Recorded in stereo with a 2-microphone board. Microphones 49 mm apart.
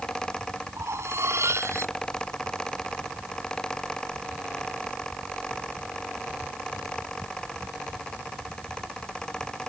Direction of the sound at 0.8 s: 70° right (ahead or behind).